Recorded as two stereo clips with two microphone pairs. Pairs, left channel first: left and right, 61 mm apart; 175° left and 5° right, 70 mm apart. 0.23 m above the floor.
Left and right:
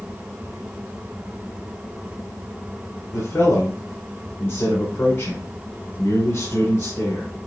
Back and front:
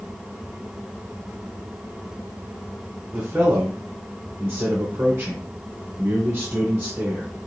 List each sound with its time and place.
3.1 s a man speaking: 55° left, 2.5 m